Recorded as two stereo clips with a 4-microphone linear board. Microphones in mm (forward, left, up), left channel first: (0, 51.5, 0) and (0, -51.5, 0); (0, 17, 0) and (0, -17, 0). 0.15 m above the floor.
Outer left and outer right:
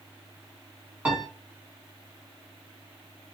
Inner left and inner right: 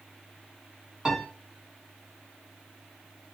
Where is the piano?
10° right (ahead or behind), 1.5 m.